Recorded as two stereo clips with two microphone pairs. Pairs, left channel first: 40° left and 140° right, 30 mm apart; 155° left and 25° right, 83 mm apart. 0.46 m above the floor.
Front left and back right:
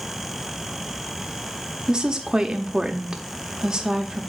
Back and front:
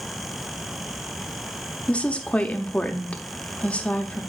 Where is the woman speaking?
140° right, 0.9 m.